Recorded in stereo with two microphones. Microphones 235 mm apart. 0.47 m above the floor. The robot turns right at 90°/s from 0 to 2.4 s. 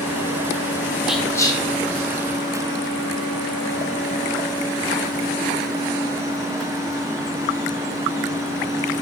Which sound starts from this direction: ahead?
Whispering, at 1.1 s.